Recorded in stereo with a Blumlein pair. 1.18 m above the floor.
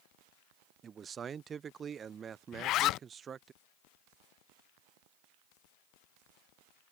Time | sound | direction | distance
0.8 | a man speaking | 20° right | ?
2.5 | a zipper | 35° left | ?